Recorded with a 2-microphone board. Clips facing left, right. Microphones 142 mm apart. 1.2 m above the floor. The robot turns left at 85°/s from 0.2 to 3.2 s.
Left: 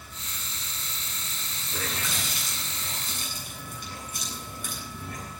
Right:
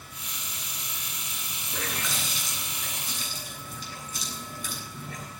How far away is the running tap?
About 8.5 m.